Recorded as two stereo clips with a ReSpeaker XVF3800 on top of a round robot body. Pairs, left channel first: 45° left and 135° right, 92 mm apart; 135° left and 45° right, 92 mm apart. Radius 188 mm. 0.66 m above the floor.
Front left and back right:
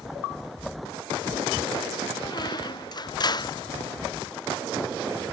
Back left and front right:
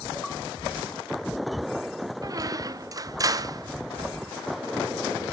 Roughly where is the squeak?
Ahead.